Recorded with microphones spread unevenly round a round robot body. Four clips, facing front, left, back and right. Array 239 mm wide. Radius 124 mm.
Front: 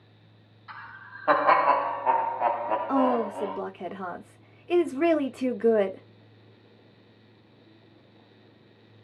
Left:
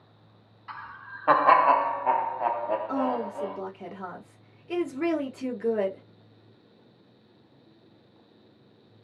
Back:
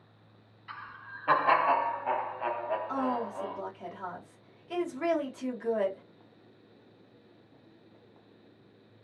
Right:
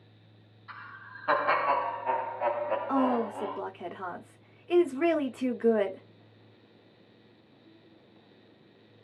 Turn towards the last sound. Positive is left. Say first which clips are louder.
# right 1 dB, front 8 dB
turn(degrees=-10)